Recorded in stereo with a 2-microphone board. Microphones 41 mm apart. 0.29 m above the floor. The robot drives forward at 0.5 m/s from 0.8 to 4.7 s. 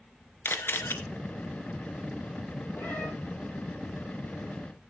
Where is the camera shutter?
75° left (ahead or behind), 1.3 m; by 0.9 s 70° left (ahead or behind), 1.3 m.